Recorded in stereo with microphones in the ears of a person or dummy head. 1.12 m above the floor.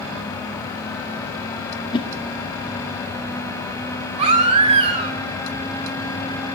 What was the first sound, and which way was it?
A whoosh, 20° left (ahead or behind).